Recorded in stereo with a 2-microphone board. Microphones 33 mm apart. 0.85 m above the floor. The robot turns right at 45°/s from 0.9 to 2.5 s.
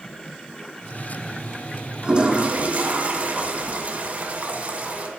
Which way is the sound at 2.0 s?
25° right (ahead or behind).